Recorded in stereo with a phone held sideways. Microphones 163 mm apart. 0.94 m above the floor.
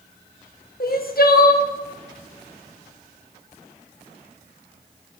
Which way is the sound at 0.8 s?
65° left (ahead or behind).